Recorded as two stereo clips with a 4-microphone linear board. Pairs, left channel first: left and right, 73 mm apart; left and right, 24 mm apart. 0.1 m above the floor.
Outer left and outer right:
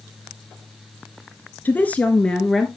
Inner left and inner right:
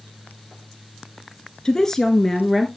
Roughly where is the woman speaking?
Left.